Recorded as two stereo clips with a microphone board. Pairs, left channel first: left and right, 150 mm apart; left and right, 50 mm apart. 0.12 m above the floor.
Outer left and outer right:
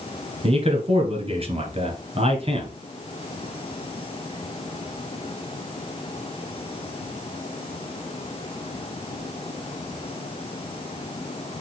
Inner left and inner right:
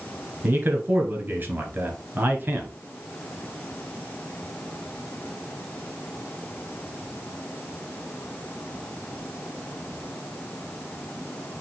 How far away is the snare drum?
No snare drum in this recording.